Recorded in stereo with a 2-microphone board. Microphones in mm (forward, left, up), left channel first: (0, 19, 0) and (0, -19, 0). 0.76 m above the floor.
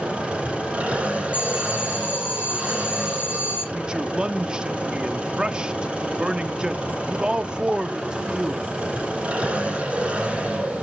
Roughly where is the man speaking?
Right.